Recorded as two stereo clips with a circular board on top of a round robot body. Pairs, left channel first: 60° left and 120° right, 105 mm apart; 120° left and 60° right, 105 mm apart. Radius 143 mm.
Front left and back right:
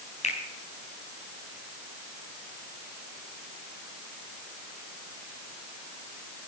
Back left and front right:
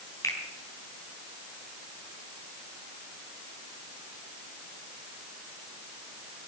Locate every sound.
0.2 s a finger snap: 60° left, 4 m